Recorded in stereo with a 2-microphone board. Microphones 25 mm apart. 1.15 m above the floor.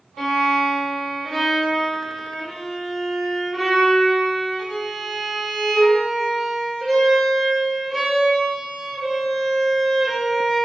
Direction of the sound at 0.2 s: 10° left (ahead or behind).